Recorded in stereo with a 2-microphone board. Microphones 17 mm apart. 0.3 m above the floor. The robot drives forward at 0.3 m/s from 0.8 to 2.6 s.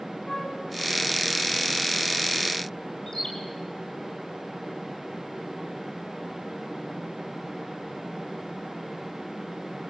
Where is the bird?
25° left (ahead or behind), 4.5 m.